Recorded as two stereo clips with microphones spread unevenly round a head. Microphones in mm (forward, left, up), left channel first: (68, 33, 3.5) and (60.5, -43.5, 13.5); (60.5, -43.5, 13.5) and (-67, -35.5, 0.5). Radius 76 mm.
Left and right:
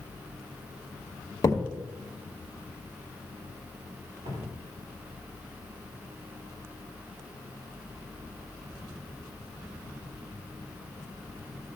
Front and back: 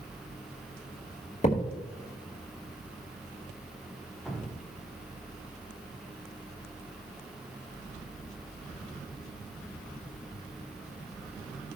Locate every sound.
1.4 s a thud: 45° left, 2.5 m
4.2 s dripping: 90° right, 1.7 m